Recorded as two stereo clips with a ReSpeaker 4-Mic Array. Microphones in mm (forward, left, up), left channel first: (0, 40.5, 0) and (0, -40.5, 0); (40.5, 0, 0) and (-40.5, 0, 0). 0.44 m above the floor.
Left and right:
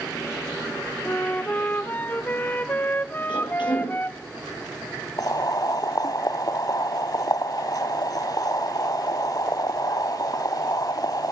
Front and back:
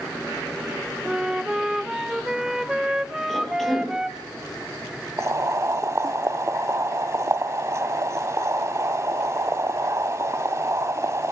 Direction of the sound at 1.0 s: 110° left.